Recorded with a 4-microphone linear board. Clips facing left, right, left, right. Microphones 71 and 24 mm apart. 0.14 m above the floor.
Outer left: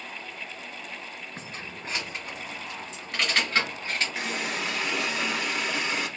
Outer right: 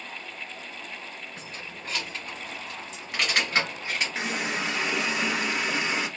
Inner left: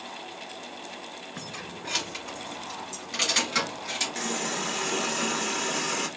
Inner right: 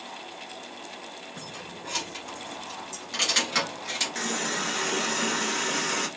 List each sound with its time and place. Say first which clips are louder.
1.4 s keys jangling: outer left 1 dB, inner left 1 dB; 35° left (ahead or behind), 1.2 m; by 4.2 s 20° right (ahead or behind), 1.9 m
4.2 s a running tap: outer right 1 dB, inner right 1 dB; 25° right (ahead or behind), 1.2 m